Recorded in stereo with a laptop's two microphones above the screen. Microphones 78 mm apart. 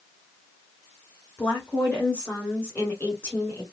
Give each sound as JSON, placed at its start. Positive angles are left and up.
{"t": 1.4, "sound": "a woman speaking", "side_deg": 25, "distance_m": 2.0}